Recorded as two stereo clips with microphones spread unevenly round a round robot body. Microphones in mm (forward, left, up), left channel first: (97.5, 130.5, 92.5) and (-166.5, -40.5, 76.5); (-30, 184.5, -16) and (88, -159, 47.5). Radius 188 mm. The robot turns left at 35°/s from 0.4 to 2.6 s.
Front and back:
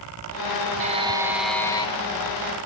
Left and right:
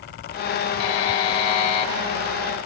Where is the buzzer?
145° left, 1.3 m; by 1.9 s 105° left, 1.3 m.